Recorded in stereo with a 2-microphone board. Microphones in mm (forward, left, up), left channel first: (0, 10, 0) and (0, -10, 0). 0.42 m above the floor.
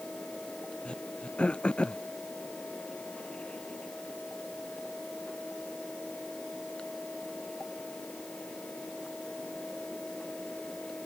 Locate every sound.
0.8 s throat clearing: 55° left (ahead or behind)